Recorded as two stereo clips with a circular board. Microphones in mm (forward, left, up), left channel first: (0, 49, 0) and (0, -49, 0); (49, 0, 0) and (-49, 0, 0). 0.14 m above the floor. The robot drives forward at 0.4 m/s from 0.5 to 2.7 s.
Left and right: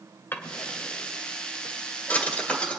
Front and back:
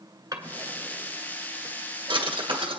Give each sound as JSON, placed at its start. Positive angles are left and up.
{"t": 0.3, "sound": "a drawer", "azimuth_deg": 150, "distance_m": 1.2}